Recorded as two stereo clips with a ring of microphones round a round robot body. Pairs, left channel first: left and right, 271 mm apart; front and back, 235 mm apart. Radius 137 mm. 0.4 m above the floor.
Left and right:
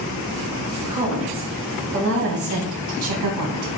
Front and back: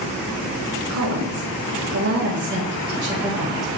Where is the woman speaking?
155° right, 3 m; by 3.7 s 90° right, 2.5 m.